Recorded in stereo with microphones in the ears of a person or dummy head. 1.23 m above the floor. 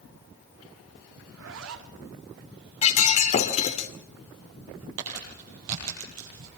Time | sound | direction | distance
1.3 | a zipper | 85° right | 2.5 m
2.8 | breaking glass | 40° left (ahead or behind) | 2 m
5.0 | crumpling | 80° right | 8.5 m